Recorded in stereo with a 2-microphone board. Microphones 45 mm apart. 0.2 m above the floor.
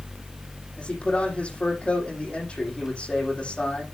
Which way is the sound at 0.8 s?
25° left (ahead or behind).